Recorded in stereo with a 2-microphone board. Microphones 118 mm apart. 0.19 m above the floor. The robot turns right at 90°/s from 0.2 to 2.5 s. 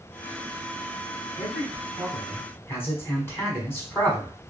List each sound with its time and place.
1.4 s a man speaking: 25° right (ahead or behind), 1.1 m; by 4.3 s 20° left (ahead or behind), 1.1 m